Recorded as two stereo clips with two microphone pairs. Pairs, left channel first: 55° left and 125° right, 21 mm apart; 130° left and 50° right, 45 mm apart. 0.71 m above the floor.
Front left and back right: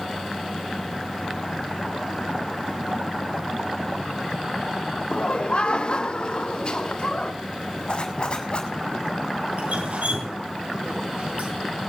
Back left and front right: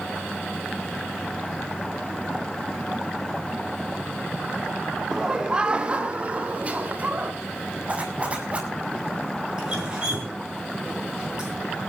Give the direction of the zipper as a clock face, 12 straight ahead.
12 o'clock.